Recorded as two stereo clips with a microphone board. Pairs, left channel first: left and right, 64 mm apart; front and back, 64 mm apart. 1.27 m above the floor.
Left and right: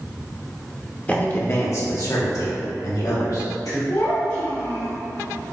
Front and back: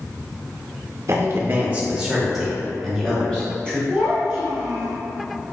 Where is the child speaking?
120° left, 1.2 m.